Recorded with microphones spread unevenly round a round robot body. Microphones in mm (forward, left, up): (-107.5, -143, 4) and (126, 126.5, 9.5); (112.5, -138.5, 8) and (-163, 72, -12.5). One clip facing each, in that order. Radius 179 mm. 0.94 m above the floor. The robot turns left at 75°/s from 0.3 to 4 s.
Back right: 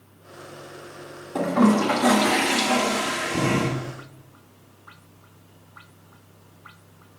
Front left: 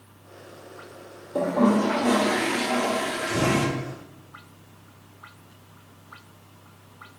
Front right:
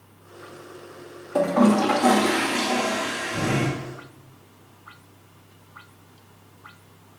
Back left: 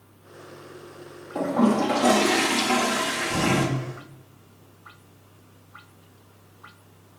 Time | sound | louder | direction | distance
1.4 | a toilet flushing | back right 2 dB, front right 3 dB | 60° right | 1.5 m